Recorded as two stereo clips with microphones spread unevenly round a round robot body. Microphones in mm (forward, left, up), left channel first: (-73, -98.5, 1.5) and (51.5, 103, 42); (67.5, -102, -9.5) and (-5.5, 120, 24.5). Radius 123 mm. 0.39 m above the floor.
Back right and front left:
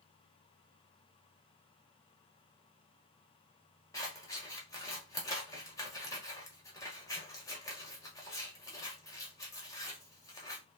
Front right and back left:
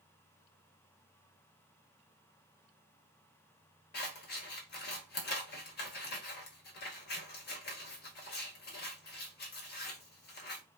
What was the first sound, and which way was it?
Scissors, 55° right.